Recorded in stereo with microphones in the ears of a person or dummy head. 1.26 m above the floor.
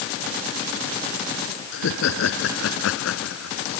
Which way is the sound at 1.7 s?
75° left (ahead or behind).